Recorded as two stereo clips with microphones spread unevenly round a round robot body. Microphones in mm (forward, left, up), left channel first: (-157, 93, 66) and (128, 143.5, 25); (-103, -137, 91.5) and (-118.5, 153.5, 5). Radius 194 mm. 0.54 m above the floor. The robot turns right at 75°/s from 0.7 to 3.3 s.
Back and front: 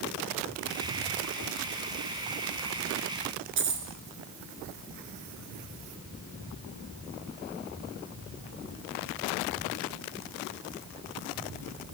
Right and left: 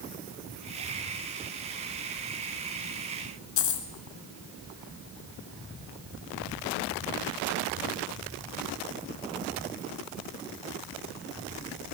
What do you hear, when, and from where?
3.6 s a dropped coin: 50° right, 1.1 m